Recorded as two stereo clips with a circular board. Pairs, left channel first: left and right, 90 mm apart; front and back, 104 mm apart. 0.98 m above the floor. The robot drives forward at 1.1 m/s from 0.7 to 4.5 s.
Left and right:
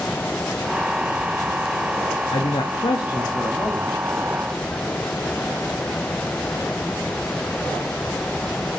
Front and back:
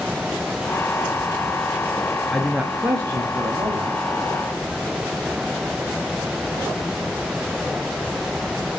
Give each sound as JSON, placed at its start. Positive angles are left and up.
{"t": 2.3, "sound": "a man speaking", "azimuth_deg": 85, "distance_m": 1.2}